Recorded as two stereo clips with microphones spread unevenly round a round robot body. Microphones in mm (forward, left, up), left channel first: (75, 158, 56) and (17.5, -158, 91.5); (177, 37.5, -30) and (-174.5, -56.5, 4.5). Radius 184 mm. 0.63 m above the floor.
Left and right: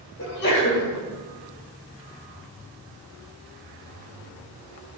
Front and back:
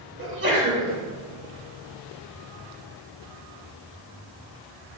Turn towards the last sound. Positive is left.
turn(degrees=135)